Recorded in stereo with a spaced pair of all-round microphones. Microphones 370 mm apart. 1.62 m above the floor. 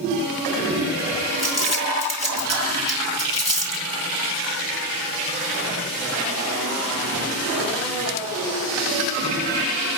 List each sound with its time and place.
1.4 s crumpling: 45° left (ahead or behind), 3.5 m